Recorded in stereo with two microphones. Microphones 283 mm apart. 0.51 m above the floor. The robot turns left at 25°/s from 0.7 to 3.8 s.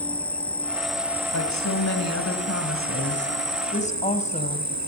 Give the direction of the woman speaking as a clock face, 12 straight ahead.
9 o'clock.